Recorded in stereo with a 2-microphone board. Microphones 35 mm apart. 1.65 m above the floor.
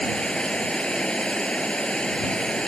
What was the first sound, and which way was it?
Running water, 30° left (ahead or behind).